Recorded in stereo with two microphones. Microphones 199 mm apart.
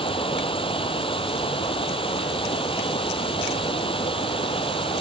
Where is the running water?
25° left (ahead or behind).